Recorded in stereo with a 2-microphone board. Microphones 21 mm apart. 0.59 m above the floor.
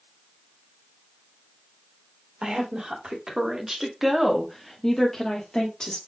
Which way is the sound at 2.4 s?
45° right (ahead or behind).